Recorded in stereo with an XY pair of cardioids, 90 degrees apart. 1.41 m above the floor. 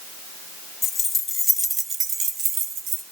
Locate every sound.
0.8 s keys jangling: 50° left, 1.5 m; by 3.0 s 80° right, 2 m